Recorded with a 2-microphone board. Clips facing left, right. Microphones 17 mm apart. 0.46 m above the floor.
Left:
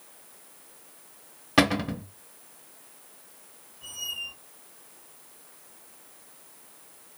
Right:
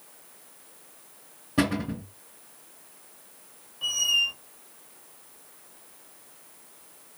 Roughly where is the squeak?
Right.